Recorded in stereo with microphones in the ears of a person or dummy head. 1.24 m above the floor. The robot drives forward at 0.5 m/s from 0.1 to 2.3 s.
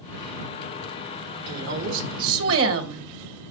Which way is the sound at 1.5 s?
65° right (ahead or behind).